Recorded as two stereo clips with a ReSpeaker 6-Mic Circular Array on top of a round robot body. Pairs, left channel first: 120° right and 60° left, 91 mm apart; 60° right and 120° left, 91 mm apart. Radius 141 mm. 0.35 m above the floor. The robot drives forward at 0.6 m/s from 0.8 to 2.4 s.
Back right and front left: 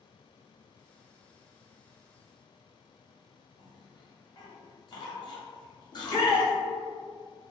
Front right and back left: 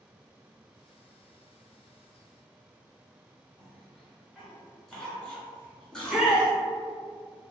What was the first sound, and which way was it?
A cough, 140° right.